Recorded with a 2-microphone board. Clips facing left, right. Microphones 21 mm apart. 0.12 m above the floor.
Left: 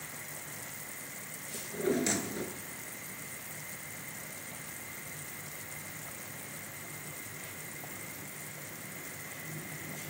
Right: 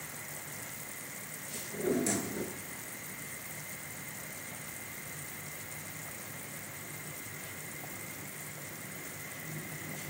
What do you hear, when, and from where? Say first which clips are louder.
1.5 s a drawer: left 1 dB; 40° left (ahead or behind), 1.0 m